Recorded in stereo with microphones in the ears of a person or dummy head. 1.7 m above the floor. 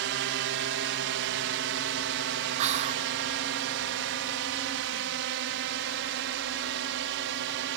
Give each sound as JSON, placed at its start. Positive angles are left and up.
{"t": 0.0, "sound": "a drone", "side_deg": -60}
{"t": 2.6, "sound": "whispering", "side_deg": -40}